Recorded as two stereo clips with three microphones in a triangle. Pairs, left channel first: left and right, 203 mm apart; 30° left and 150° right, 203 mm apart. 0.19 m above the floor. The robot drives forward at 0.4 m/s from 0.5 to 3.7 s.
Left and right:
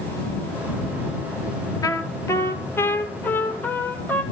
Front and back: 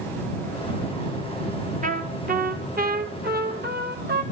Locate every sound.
1.8 s a trumpet: 165° left, 0.8 m; by 4.2 s 170° left, 1.5 m